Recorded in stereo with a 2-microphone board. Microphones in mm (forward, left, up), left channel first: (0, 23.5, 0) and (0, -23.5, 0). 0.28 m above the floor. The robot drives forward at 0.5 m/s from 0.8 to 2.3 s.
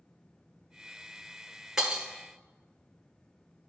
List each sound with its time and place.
1.8 s breaking glass: 15° right (ahead or behind), 1.4 m